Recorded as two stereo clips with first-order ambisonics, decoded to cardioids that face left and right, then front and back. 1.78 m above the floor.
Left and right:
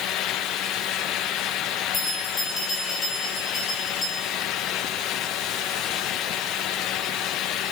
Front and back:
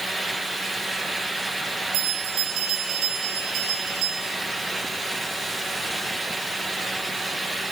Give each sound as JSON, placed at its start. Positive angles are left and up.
{"t": 1.9, "sound": "a bell", "azimuth_deg": 160, "distance_m": 6.5}